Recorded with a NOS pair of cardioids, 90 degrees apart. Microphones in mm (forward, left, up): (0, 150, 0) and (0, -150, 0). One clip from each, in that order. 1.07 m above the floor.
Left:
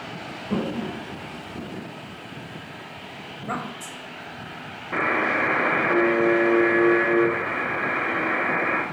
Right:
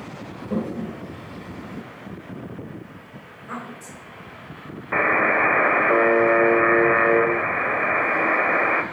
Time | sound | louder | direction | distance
0.5 | a toilet flushing | even | 10° left | 1.2 m
3.3 | a woman speaking | left 4 dB | 35° left | 1.1 m
4.9 | a buzzer | right 4 dB | 35° right | 0.7 m